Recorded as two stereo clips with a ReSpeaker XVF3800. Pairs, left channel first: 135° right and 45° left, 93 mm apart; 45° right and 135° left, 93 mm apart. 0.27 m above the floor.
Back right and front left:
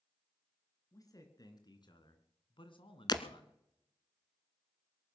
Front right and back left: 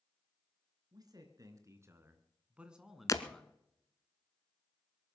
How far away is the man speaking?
About 3 m.